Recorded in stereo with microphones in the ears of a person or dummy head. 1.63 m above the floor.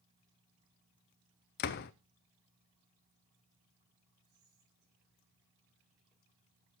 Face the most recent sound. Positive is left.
turn(degrees=0)  # may be behind; listen again after turning